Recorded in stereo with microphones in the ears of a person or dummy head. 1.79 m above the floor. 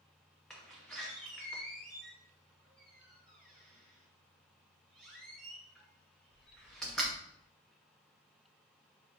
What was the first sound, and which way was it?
A door slam, centre (ahead or behind).